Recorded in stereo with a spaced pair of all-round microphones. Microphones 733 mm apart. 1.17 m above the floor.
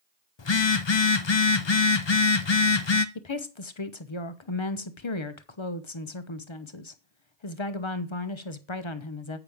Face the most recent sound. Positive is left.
turn(degrees=40)  # may be behind; listen again after turning